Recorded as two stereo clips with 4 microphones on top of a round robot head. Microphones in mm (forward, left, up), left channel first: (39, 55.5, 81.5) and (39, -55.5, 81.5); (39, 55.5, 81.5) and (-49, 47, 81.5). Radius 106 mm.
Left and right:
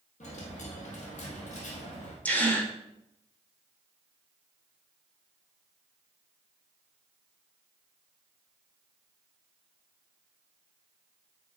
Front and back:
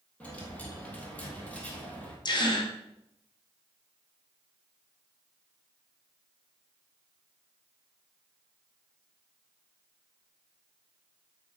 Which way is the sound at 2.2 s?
15° left.